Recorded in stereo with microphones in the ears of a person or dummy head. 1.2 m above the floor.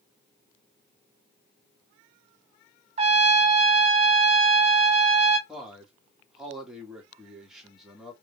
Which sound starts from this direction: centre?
A man speaking, at 5.5 s.